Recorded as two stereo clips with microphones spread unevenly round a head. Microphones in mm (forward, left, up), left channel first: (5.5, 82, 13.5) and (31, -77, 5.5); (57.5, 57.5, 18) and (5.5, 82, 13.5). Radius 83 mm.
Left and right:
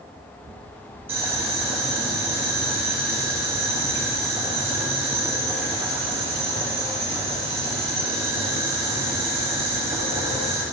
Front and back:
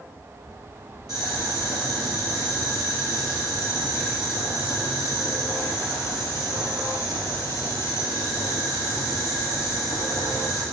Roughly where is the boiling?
Behind.